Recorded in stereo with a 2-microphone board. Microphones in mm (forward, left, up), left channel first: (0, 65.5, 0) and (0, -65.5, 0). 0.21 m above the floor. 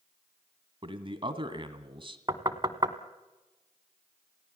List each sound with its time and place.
0.8 s a man speaking: 40° right (ahead or behind), 1.7 m
2.3 s knocking: 35° right (ahead or behind), 1.1 m